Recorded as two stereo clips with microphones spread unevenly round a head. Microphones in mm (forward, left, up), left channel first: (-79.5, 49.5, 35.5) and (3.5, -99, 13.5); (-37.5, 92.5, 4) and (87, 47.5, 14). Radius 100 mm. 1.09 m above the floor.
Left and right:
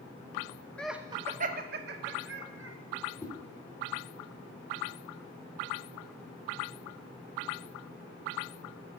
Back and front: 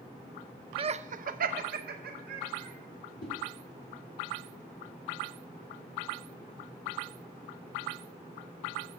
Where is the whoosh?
165° right, 2.5 m.